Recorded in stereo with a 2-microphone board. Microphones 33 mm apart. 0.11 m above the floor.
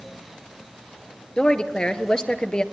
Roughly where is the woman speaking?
Left.